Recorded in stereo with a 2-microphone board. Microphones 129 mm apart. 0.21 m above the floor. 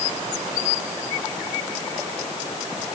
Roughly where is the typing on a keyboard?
I don't hear typing on a keyboard.